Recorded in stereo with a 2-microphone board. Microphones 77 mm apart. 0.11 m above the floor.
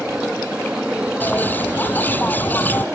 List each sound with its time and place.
0.0 s an aircraft: 15° right (ahead or behind); by 3.0 s 20° right (ahead or behind)
1.2 s a bird: 25° left (ahead or behind)